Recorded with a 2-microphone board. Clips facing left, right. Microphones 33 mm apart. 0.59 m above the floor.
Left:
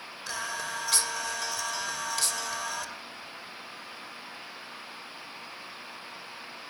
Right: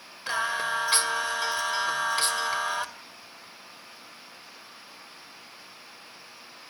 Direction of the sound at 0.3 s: 35° right (ahead or behind).